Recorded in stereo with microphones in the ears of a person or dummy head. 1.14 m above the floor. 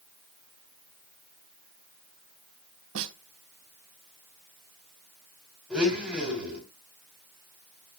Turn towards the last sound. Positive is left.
turn(degrees=-10)  # may be behind; listen again after turning